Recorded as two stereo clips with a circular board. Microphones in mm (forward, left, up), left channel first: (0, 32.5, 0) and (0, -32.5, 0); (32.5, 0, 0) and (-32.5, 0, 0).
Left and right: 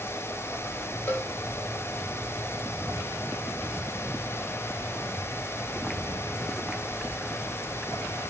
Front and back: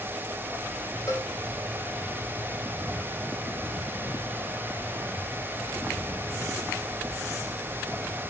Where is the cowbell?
35° left, 2.5 m.